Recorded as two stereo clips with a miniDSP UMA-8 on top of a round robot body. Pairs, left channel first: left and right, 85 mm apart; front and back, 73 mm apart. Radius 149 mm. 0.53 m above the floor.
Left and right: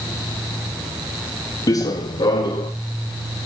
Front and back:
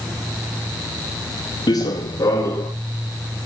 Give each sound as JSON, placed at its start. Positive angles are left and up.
{"t": 1.7, "sound": "running footsteps", "azimuth_deg": 40, "distance_m": 1.2}